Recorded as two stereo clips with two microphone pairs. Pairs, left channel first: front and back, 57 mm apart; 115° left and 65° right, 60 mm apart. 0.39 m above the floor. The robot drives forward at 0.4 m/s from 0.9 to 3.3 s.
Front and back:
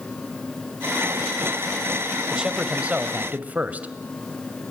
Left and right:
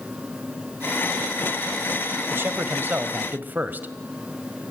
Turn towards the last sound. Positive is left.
turn(degrees=-120)